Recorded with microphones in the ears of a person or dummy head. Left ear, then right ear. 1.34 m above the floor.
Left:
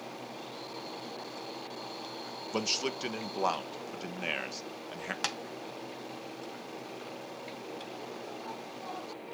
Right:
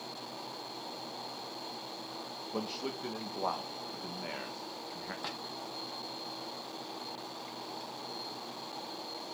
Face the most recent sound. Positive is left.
turn(degrees=70)  # may be behind; listen again after turning